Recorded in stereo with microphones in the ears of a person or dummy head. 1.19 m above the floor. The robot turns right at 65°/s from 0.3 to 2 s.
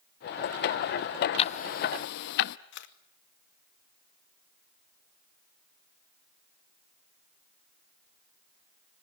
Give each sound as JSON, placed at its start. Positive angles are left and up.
{"t": 1.4, "sound": "ticking", "side_deg": 30, "distance_m": 0.7}
{"t": 2.7, "sound": "a camera shutter", "side_deg": 60, "distance_m": 1.6}